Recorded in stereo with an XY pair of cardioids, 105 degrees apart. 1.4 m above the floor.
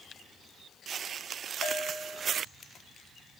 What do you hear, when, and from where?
1.6 s a bell: 70° left, 2 m